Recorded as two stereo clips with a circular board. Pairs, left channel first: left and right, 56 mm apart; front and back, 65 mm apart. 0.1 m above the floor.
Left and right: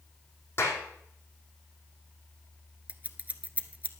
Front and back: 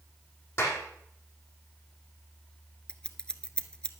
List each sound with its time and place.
0.6 s a clap: 45° left, 4 m
2.9 s scissors: 60° right, 1.0 m